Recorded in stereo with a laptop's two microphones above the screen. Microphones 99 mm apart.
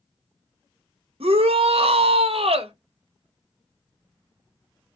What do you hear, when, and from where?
1.2 s a shout: 75° right (ahead or behind), 0.7 m